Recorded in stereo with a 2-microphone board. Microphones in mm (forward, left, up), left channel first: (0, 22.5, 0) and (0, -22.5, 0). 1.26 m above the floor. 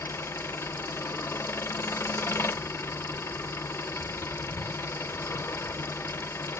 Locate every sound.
0.0 s an engine running: 75° left (ahead or behind), 0.7 m